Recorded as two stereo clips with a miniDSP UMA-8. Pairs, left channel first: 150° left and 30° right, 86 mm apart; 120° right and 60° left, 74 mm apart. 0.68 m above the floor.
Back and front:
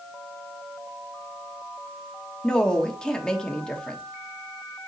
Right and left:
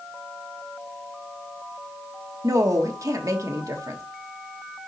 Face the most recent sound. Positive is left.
turn(degrees=70)